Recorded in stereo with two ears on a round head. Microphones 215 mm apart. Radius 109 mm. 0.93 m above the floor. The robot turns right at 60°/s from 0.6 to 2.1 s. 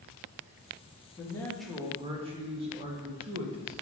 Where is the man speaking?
150° left, 1.4 m; by 3.7 s 150° right, 1.4 m.